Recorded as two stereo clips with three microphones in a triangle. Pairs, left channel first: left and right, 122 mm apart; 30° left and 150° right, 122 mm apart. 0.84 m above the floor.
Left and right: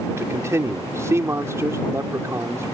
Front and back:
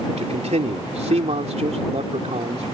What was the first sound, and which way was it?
A man speaking, 155° right.